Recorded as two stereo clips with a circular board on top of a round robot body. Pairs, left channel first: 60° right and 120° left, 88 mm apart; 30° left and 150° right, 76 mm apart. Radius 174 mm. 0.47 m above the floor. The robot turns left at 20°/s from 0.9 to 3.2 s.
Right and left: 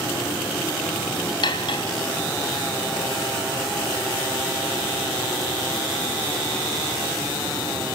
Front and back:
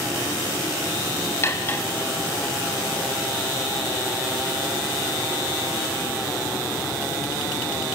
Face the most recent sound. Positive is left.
turn(degrees=-65)